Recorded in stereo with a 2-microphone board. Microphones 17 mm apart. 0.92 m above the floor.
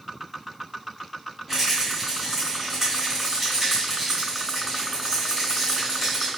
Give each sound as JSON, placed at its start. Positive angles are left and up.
{"t": 1.5, "sound": "a rattle", "side_deg": -10, "distance_m": 1.8}